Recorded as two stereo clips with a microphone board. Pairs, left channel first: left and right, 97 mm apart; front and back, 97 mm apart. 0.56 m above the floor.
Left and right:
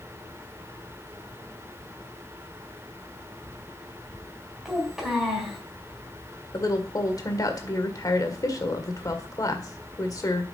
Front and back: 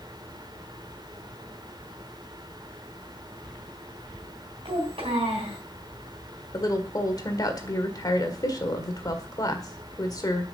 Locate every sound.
4.7 s a child speaking: 175° right, 3.5 m
6.5 s a woman speaking: 45° left, 1.7 m